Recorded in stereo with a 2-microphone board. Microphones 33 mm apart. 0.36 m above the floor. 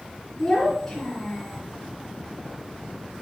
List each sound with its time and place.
0.4 s a child speaking: 5° left (ahead or behind), 2.5 m